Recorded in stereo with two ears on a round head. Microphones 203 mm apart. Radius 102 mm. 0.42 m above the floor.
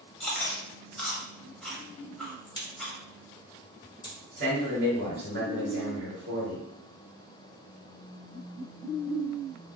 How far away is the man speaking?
About 1.6 m.